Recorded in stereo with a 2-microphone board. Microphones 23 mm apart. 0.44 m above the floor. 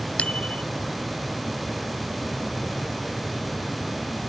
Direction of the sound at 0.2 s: 75° left (ahead or behind).